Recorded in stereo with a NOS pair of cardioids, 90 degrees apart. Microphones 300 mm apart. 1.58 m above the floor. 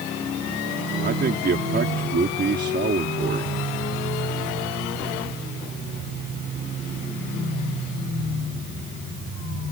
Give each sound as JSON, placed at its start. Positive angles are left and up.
{"t": 1.0, "sound": "a man speaking", "azimuth_deg": -35}